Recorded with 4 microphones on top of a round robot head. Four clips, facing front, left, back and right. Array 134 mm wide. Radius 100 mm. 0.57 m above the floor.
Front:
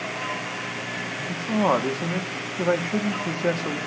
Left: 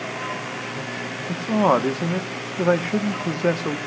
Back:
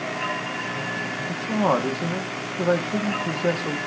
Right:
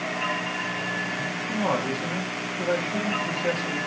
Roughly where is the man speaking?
Left.